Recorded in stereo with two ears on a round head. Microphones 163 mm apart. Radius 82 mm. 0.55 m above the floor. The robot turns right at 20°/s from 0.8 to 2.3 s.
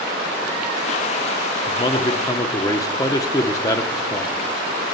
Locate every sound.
1.7 s a man speaking: 25° left (ahead or behind), 0.8 m; by 4.5 s 20° left (ahead or behind), 0.8 m